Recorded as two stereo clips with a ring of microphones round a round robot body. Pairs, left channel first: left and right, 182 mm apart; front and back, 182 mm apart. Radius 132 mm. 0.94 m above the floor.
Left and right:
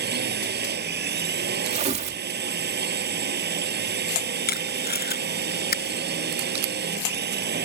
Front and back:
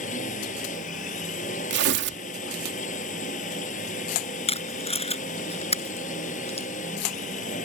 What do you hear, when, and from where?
0.0 s a drone: 65° right
1.7 s tearing paper: 150° right
4.5 s tape being pulled: 55° left